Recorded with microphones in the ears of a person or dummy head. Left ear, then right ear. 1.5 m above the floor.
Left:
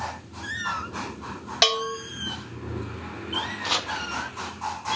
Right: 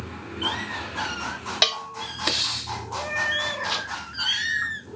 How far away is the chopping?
About 0.8 m.